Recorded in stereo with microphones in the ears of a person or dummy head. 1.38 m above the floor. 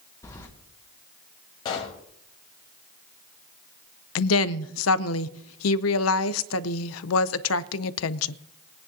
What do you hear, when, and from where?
0.2 s keys jangling: 15° left (ahead or behind), 2.0 m
1.6 s a pop: 20° left (ahead or behind), 1.3 m
4.2 s a woman speaking: 75° left (ahead or behind), 0.5 m